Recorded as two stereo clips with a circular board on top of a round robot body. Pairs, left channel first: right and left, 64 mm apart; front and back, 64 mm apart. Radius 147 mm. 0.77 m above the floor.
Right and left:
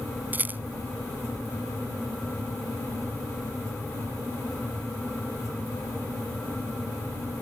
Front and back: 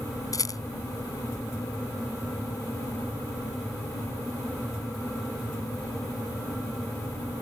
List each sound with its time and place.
0.3 s a rattle: 30° left